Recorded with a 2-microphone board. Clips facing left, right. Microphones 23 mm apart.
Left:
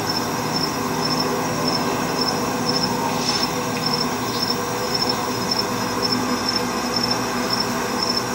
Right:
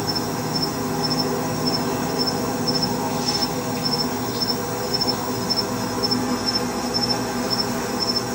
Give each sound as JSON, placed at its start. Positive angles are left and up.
{"t": 0.0, "sound": "an insect", "side_deg": 55, "distance_m": 0.9}